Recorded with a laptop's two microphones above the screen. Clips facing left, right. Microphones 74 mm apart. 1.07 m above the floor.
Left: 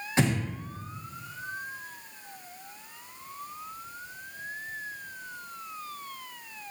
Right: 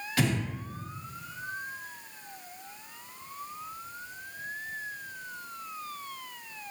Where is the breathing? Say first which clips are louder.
Left 2 dB; 25° left (ahead or behind), 1.0 m.